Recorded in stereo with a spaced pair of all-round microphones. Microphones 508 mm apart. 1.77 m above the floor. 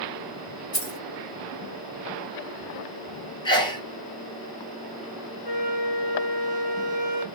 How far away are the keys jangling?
About 1.4 m.